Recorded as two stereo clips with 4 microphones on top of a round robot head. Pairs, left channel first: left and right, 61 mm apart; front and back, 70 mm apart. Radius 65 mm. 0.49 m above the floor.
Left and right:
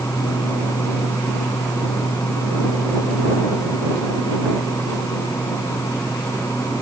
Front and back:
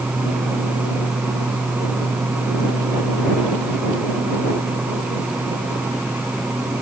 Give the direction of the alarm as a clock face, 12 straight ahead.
No alarm in this recording.